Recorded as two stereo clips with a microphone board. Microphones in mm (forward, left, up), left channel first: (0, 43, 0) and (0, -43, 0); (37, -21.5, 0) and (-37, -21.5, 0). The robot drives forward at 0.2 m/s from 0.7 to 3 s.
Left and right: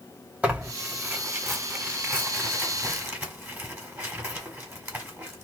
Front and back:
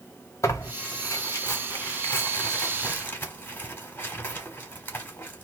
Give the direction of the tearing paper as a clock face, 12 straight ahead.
1 o'clock.